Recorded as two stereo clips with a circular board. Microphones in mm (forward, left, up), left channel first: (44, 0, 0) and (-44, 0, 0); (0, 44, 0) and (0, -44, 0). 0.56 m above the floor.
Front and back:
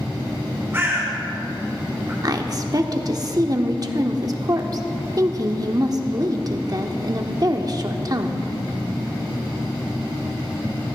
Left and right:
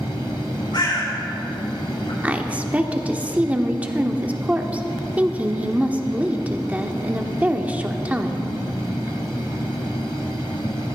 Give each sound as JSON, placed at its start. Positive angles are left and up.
{"t": 0.7, "sound": "a bird", "azimuth_deg": 115, "distance_m": 5.5}
{"t": 2.2, "sound": "a woman speaking", "azimuth_deg": -160, "distance_m": 1.0}